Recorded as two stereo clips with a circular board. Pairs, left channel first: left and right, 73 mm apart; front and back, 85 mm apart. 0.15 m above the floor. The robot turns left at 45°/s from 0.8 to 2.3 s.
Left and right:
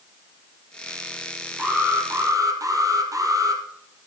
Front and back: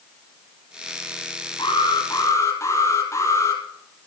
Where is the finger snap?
I don't hear a finger snap.